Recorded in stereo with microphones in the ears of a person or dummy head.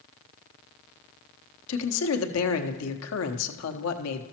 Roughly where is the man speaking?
Left.